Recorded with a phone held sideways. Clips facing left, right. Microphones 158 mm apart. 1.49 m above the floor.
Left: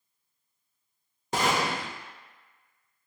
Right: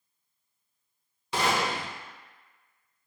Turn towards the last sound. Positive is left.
turn(degrees=45)  # may be behind; listen again after turning